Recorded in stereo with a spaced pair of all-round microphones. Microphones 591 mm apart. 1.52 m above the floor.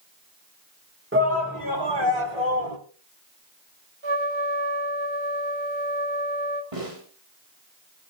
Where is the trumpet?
50° right (ahead or behind), 1.0 m.